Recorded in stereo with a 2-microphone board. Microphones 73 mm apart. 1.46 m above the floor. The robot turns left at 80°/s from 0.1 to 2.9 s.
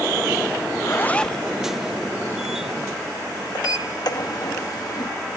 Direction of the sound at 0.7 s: 55° left.